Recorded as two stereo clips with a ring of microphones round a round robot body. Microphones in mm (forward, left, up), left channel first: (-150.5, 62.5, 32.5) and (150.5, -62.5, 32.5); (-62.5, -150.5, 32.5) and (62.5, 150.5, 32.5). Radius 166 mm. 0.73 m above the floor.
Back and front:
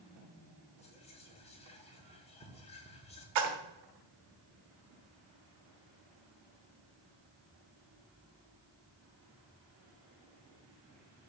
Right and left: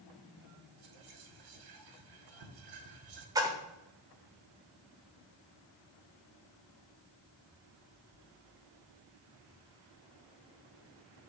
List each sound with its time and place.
0.8 s whispering: 85° left, 1.9 m
3.4 s a splash: 10° right, 1.3 m